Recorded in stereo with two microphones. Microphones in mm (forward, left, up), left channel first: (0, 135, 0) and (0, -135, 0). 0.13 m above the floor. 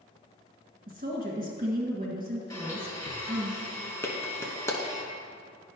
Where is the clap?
10° left (ahead or behind), 0.8 m.